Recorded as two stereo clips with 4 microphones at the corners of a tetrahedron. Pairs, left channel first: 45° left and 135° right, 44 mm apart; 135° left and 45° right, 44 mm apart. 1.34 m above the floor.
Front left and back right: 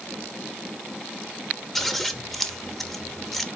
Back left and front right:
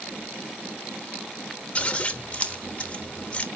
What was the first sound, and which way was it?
Scissors, 125° left.